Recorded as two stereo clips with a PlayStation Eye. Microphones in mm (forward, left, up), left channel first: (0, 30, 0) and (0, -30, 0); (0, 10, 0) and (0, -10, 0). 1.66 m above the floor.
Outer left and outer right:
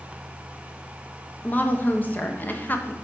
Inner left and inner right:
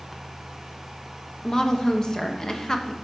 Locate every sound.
1.4 s a woman speaking: 30° left (ahead or behind), 0.8 m